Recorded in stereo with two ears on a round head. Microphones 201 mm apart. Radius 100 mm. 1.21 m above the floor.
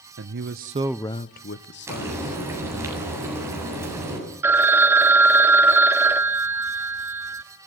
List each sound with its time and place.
0.2 s a man speaking: 55° right (ahead or behind), 1.1 m; by 2.9 s 60° left (ahead or behind), 2.5 m
1.9 s frying: 10° right (ahead or behind), 8 m
4.4 s a phone ringing: 10° right (ahead or behind), 1.3 m